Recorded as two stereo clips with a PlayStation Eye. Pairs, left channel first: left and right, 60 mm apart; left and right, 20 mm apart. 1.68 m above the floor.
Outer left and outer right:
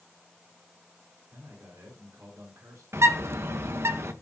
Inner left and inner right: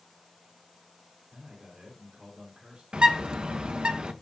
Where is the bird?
55° right (ahead or behind), 1.2 m.